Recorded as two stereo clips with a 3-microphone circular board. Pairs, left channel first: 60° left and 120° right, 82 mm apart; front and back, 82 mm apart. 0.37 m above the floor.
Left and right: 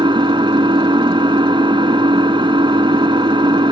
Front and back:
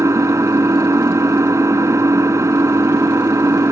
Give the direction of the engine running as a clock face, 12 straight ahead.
4 o'clock.